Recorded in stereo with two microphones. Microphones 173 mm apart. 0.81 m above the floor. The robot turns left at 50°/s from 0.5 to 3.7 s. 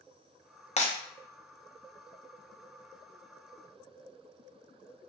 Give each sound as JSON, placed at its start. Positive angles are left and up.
{"t": 0.8, "sound": "breaking glass", "side_deg": 40, "distance_m": 0.5}